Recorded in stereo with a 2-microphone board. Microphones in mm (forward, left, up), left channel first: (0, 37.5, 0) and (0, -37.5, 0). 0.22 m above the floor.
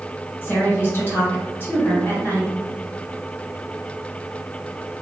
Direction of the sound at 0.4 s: 30° left (ahead or behind).